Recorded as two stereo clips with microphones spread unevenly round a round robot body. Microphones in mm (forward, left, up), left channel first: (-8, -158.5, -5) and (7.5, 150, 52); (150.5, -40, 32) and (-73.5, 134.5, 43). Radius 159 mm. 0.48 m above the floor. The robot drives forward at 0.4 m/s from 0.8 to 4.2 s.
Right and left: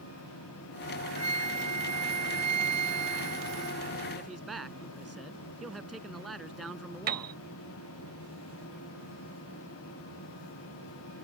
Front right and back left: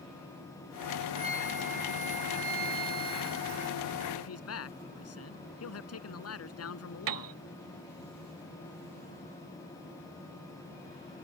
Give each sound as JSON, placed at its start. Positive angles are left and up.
{"t": 1.2, "sound": "a flute", "azimuth_deg": 75}
{"t": 4.2, "sound": "a man speaking", "azimuth_deg": -5}
{"t": 7.1, "sound": "a piano", "azimuth_deg": 150}